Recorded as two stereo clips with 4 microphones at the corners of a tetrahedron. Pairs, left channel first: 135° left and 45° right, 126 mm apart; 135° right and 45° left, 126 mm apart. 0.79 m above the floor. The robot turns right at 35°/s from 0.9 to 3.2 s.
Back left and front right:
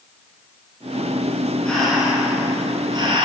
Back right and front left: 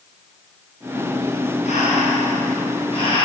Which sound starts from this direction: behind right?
Breathing, at 1.6 s.